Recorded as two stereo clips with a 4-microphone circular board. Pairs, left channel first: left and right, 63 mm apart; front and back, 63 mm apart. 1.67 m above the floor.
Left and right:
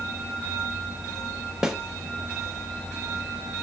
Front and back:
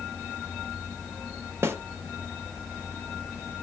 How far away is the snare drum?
About 0.7 m.